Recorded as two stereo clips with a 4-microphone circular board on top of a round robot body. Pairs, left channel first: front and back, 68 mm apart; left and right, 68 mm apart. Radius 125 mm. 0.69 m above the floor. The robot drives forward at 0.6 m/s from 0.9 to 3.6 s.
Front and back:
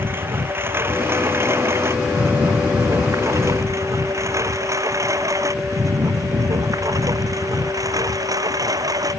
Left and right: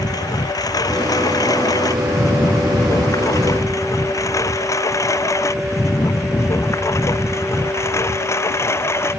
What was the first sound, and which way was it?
A lawn mower, 120° left.